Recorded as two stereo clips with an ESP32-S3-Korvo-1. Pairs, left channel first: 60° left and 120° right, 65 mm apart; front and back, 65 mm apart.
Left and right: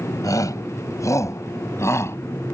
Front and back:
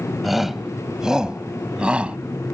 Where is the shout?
90° left; by 2.2 s 105° left.